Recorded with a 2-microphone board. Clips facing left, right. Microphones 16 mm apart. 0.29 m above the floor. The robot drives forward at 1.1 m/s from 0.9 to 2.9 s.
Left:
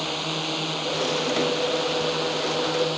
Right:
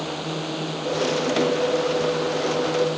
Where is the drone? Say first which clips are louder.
Left 1 dB; 30° left (ahead or behind).